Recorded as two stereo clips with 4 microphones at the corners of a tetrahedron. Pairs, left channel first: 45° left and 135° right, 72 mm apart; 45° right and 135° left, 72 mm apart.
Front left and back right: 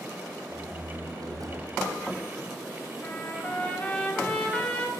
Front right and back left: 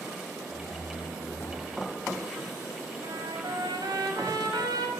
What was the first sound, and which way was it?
A door slam, 100° right.